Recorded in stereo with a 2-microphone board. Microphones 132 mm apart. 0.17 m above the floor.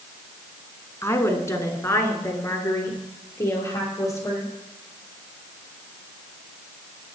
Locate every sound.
1.0 s a woman speaking: 20° left (ahead or behind), 1.7 m